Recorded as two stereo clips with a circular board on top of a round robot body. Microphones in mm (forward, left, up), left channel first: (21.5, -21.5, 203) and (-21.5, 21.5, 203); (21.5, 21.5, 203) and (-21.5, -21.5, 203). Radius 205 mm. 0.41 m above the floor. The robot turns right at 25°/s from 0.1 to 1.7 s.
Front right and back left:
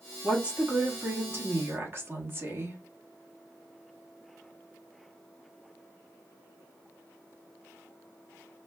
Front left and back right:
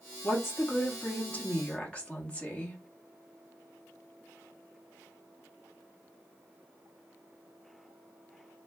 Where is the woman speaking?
70° left, 1.2 m; by 2.8 s 105° left, 1.2 m.